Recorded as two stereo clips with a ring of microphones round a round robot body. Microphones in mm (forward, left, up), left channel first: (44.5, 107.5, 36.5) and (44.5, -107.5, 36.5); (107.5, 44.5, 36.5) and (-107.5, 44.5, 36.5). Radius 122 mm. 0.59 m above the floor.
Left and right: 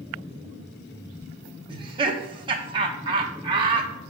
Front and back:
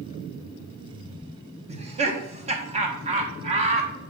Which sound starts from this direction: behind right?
Laughter, at 1.7 s.